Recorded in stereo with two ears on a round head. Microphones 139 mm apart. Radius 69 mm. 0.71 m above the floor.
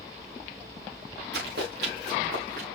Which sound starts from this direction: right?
Running footsteps, at 1.3 s.